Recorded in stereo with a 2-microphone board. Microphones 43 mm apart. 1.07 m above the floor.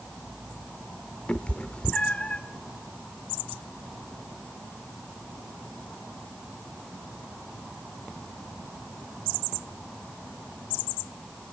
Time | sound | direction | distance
1.3 | a cat meowing | 30° left (ahead or behind) | 0.7 m